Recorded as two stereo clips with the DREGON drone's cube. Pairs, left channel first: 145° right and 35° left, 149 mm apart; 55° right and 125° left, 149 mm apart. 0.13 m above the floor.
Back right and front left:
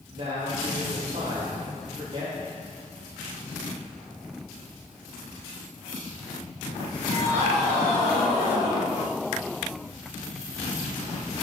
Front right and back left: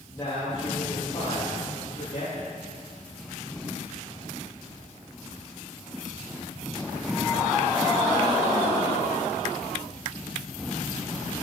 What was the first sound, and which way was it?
A man speaking, 10° left.